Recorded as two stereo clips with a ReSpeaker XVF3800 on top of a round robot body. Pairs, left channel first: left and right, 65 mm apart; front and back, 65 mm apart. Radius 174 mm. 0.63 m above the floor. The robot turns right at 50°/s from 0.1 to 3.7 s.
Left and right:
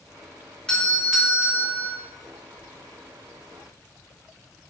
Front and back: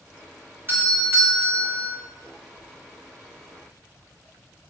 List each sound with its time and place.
0.7 s a doorbell: 160° left, 1.2 m; by 2.0 s 140° right, 1.2 m